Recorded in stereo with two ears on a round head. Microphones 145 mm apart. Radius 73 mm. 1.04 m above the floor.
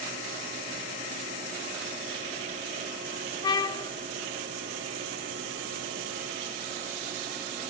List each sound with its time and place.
3.4 s a trumpet: 25° left (ahead or behind), 0.8 m